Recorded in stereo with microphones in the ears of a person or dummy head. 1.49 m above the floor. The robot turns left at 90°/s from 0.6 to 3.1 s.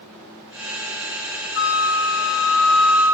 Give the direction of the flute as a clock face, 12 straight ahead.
8 o'clock.